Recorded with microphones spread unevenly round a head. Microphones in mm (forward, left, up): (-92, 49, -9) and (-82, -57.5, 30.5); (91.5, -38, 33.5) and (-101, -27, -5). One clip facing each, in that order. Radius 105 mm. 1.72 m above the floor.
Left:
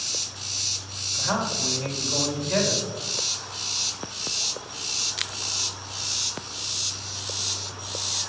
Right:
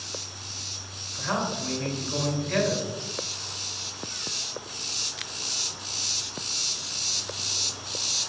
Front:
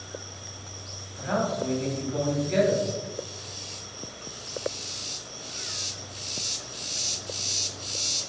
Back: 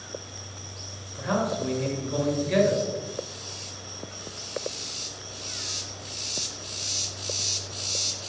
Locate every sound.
1.1 s a man speaking: 170° left, 3 m